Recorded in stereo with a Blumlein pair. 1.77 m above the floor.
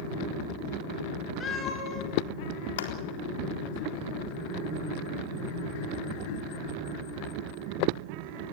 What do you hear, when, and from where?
1.4 s a cat meowing: 20° left, 5 m
2.8 s a clap: 55° left, 3.5 m